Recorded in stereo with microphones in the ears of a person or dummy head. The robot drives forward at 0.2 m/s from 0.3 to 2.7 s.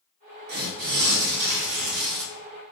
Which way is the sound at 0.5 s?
50° right (ahead or behind).